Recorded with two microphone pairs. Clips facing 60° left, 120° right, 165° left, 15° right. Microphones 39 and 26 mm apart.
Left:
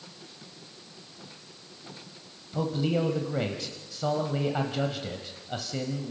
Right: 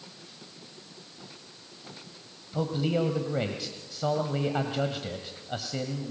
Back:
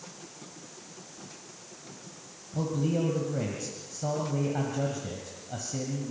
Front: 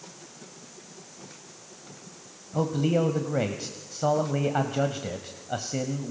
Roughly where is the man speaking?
Ahead right.